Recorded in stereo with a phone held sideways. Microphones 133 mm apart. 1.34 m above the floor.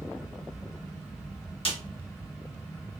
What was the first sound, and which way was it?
A fan, 5° right (ahead or behind).